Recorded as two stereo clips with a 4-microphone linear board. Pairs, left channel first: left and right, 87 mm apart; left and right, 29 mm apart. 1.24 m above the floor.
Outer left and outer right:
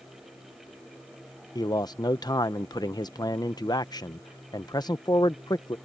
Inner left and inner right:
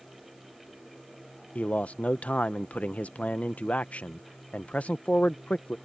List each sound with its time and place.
1.6 s a man speaking: 50° left (ahead or behind)